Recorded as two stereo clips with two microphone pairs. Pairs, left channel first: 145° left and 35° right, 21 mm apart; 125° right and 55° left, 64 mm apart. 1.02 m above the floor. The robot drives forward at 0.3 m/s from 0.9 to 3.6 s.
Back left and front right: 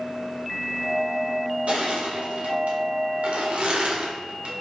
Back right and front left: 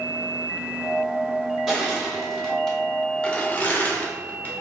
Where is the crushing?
30° right, 1.0 m; by 4.5 s 55° right, 0.6 m.